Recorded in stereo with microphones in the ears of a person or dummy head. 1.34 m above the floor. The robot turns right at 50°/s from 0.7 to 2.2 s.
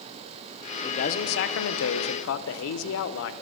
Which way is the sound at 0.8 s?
35° left.